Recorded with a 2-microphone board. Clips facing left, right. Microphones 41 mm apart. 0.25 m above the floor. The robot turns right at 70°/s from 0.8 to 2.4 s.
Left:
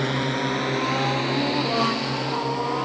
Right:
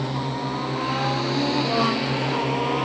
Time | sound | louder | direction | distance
0.0 | a drone | left 3 dB | 65° left (ahead or behind) | ?